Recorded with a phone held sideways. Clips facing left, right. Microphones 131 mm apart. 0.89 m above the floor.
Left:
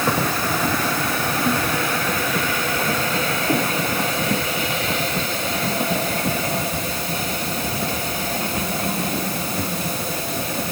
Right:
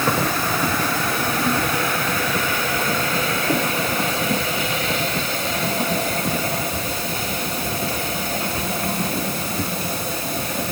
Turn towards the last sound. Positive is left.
No sound to turn to.